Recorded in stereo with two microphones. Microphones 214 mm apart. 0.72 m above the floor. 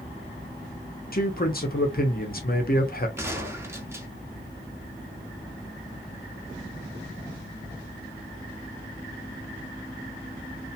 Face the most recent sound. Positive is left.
turn(degrees=-10)  # may be behind; listen again after turning